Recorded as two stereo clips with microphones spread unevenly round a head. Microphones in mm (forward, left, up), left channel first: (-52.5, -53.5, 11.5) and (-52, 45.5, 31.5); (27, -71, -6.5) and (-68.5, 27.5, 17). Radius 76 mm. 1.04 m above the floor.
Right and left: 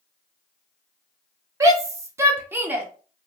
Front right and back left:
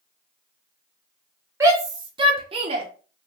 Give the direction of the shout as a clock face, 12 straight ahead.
10 o'clock.